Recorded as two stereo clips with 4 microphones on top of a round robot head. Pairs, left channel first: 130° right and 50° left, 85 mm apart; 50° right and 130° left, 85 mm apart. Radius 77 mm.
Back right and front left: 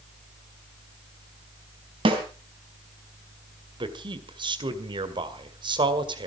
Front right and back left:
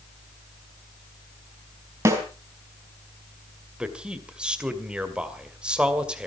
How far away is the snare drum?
About 3.5 m.